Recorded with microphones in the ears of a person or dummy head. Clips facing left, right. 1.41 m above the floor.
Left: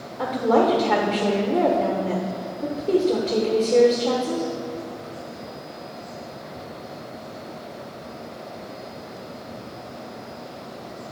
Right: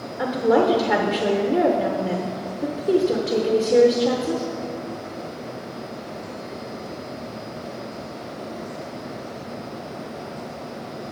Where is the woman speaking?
15° right (ahead or behind), 0.9 m.